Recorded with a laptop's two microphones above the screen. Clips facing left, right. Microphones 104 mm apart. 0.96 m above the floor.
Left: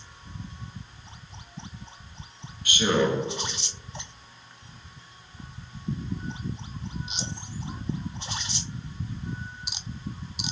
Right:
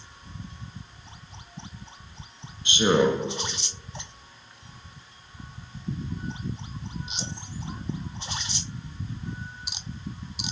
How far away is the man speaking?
About 0.9 m.